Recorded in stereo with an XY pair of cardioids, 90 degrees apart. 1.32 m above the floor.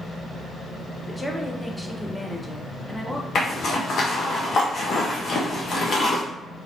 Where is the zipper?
60° left, 1.0 m.